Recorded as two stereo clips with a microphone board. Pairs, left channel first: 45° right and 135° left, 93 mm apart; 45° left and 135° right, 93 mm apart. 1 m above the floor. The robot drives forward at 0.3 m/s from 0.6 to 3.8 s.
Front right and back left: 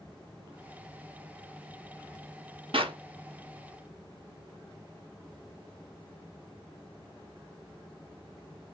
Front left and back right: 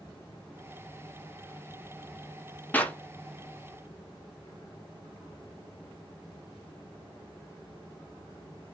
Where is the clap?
115° left, 0.8 m; by 3.0 s 120° left, 0.9 m.